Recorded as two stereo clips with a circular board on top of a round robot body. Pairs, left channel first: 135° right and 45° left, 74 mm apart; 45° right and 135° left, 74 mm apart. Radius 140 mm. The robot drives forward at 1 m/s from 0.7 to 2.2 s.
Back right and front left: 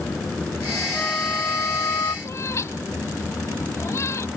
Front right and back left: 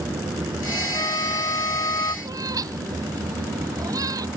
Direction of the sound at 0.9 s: 65° right.